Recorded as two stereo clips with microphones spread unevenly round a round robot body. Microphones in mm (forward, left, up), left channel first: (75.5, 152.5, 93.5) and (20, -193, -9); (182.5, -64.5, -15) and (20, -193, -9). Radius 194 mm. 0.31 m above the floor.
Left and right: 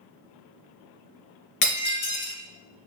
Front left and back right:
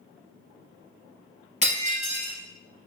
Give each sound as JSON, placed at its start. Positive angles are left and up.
{"t": 1.6, "sound": "breaking glass", "azimuth_deg": 85, "distance_m": 2.5}